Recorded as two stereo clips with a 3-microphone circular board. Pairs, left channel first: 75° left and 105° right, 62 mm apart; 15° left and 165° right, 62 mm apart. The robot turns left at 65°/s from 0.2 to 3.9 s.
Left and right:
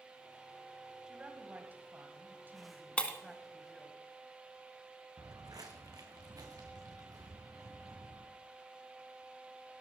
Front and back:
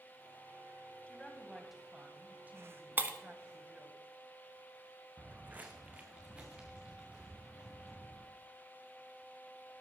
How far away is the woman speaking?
About 1.7 m.